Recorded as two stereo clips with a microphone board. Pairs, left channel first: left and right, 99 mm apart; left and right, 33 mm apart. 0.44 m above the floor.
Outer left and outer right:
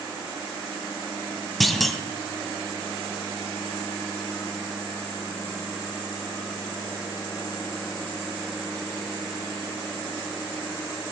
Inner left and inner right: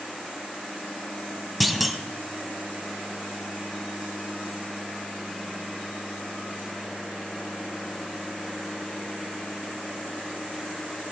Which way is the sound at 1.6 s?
Centre (ahead or behind).